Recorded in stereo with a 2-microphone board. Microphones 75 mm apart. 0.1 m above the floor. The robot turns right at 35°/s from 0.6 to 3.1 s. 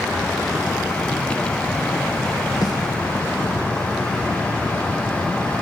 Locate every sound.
2.6 s a snare drum: 60° left (ahead or behind), 4 m; by 2.8 s 55° left (ahead or behind), 4 m